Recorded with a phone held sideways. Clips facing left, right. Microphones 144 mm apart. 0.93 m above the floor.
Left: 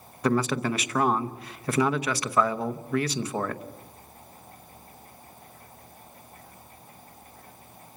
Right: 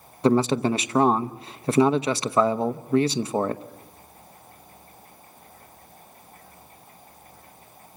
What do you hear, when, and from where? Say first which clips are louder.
0.2 s a man speaking: right 5 dB; 25° right (ahead or behind), 0.9 m